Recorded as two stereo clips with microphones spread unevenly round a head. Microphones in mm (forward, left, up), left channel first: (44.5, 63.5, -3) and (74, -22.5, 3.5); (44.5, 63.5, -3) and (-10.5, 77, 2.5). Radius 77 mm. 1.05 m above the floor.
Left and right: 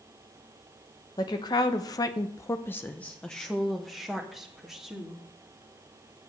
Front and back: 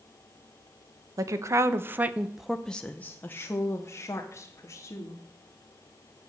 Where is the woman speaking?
155° left, 0.9 m; by 5.2 s 15° left, 2.0 m.